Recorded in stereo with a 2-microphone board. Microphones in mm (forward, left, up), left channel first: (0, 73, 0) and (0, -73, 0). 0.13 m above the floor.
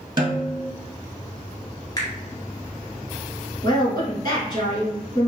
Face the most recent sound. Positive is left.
turn(degrees=30)  # may be behind; listen again after turning